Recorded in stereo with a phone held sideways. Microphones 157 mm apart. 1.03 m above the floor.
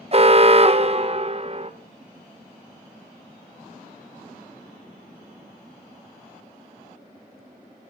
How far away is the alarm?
About 1.2 m.